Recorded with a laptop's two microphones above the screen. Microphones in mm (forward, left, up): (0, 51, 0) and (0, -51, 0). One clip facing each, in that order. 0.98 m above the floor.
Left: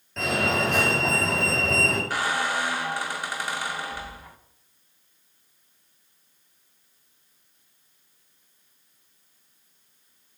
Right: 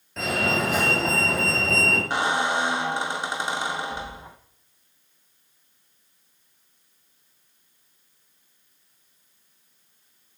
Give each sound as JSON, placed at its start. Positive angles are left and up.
{"t": 0.2, "sound": "a fire alarm", "side_deg": -5, "distance_m": 7.0}
{"t": 2.1, "sound": "a squeak", "side_deg": -20, "distance_m": 0.5}